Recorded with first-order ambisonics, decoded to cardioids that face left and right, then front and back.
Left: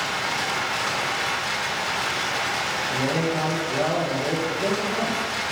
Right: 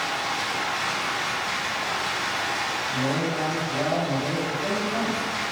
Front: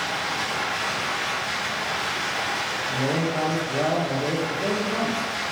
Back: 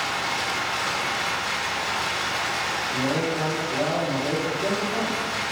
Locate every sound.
0.0 s running water: 115° left, 0.8 m
2.9 s a man speaking: 40° left, 0.6 m